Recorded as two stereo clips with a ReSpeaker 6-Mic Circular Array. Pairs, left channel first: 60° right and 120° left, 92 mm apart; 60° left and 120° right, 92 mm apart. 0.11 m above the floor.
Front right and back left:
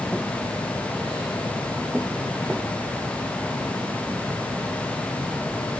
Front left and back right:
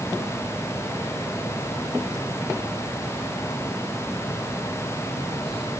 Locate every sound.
Only background noise.